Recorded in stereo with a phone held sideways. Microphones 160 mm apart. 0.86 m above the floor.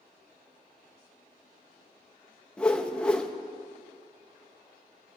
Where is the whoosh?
5° left (ahead or behind), 0.8 m.